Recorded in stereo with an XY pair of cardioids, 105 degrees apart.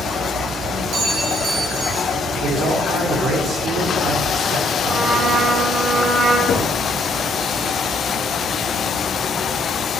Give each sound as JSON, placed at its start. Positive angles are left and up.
{"t": 0.9, "sound": "a clink", "azimuth_deg": -65, "distance_m": 5.5}
{"t": 2.4, "sound": "a man speaking", "azimuth_deg": -65, "distance_m": 4.0}
{"t": 4.9, "sound": "a trumpet", "azimuth_deg": -40, "distance_m": 5.5}
{"t": 6.5, "sound": "knocking", "azimuth_deg": 55, "distance_m": 2.0}